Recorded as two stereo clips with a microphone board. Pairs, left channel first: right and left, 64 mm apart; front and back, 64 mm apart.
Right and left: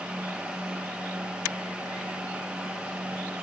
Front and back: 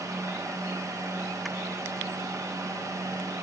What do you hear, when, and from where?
Only background noise.